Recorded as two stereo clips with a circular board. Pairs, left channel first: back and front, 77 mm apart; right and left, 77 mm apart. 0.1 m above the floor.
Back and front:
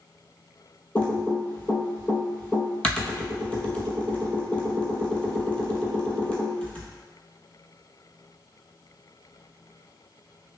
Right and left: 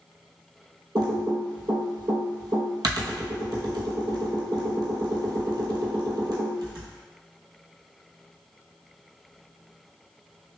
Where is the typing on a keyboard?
105° left, 0.7 m.